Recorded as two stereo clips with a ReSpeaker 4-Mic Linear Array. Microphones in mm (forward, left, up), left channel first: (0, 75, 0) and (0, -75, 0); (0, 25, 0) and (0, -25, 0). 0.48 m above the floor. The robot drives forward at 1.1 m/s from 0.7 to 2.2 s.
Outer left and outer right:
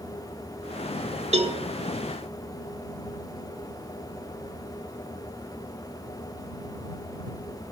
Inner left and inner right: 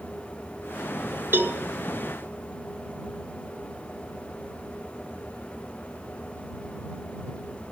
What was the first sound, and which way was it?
A cowbell, 45° right (ahead or behind).